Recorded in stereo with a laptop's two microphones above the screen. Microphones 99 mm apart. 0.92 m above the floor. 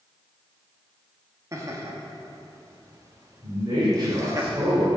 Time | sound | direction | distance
1.5 | laughter | 35° right (ahead or behind) | 1.3 m
3.4 | a man speaking | 45° right (ahead or behind) | 2.5 m